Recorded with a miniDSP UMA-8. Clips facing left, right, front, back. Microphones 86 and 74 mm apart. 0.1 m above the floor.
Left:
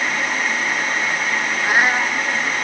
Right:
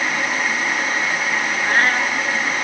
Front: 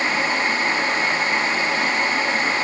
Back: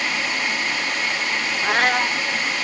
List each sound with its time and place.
1.6 s a cat meowing: 165° left